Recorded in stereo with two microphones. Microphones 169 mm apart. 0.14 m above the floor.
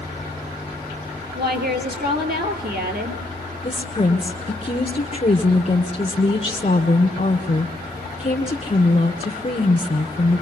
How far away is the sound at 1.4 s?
About 4 m.